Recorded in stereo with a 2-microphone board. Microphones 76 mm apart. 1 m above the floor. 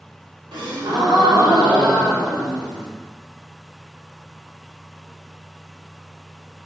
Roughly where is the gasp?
Right.